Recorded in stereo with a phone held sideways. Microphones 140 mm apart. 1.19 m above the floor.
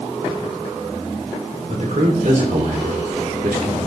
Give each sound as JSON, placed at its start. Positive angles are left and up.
{"t": 1.7, "sound": "a man speaking", "side_deg": -65, "distance_m": 3.0}